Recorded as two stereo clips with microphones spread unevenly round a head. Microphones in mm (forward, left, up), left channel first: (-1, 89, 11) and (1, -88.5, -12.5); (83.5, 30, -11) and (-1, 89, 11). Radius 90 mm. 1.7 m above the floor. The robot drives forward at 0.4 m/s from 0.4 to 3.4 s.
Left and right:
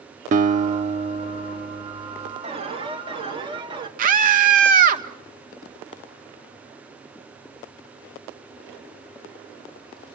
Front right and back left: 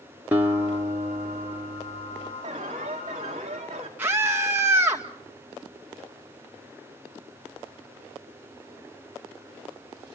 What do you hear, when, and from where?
0.3 s a guitar: 140° right, 0.9 m; by 2.3 s 160° right, 1.5 m
2.4 s an alarm: 145° right, 2.0 m; by 3.9 s 155° right, 2.5 m
4.0 s a scream: 135° right, 1.7 m